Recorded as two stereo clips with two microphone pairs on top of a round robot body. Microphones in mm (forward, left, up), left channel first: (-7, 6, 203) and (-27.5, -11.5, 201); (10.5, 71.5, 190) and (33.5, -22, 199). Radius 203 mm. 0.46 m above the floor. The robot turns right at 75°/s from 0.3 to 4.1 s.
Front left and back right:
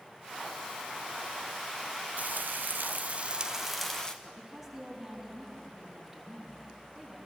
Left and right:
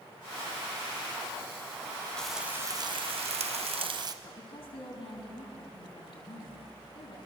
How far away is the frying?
About 0.9 m.